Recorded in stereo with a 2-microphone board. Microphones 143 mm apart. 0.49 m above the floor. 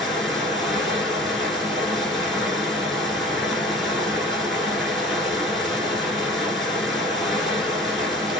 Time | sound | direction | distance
0.0 | running water | centre (ahead or behind) | 0.9 m